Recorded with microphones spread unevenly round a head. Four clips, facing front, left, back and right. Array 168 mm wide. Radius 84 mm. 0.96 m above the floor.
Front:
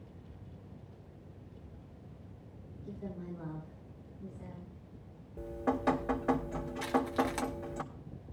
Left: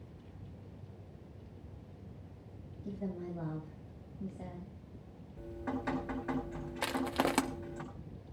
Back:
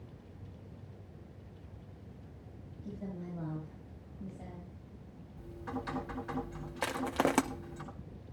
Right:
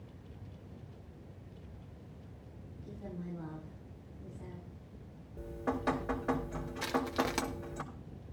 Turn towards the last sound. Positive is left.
turn(degrees=165)